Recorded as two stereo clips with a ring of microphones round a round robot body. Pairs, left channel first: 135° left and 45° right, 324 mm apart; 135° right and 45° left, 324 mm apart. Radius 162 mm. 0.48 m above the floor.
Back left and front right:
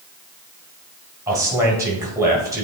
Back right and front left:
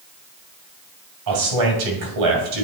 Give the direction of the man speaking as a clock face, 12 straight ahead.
11 o'clock.